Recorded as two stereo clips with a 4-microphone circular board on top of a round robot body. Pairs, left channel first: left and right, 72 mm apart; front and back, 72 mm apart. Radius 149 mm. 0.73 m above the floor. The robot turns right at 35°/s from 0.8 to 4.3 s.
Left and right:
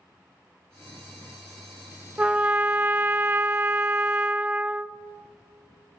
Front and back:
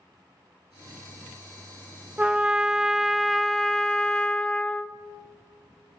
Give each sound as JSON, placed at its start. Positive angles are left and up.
{"t": 2.2, "sound": "a trumpet", "azimuth_deg": -130, "distance_m": 0.5}